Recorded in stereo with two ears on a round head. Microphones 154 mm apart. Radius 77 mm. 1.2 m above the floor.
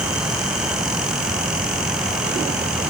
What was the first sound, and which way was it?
Only background noise.